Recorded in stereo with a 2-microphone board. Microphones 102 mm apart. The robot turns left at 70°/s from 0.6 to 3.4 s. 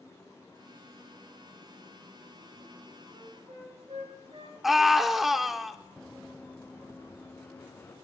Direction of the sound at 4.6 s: Centre (ahead or behind).